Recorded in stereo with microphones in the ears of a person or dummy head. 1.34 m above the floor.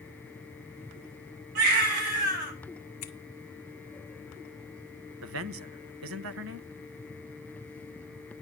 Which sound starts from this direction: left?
Scissors, at 3.0 s.